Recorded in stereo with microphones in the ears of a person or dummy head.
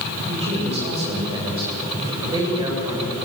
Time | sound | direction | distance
0.3 | a man speaking | 30° right (ahead or behind) | 8.5 m